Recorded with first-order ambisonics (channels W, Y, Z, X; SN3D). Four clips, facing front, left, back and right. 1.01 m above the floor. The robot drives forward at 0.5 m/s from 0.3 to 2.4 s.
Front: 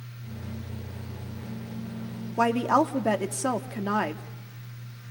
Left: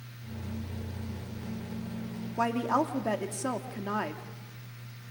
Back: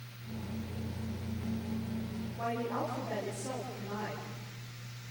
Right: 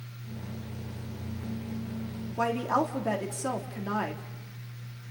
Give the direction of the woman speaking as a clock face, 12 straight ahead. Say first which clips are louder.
Even, front 13 dB; 12 o'clock.